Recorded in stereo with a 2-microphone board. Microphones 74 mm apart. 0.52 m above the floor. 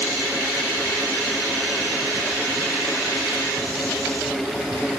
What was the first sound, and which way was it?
Only background noise.